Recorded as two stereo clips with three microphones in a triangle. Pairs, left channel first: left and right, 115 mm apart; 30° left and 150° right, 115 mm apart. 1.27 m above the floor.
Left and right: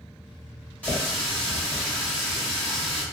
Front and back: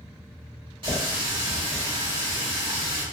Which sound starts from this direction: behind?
A running tap, at 0.8 s.